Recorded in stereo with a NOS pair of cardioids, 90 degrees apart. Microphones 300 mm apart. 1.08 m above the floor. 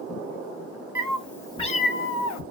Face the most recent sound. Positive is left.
turn(degrees=80)